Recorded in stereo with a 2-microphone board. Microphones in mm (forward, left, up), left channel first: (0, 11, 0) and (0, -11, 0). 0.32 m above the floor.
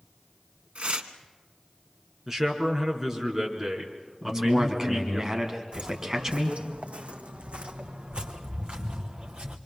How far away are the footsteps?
About 1.5 m.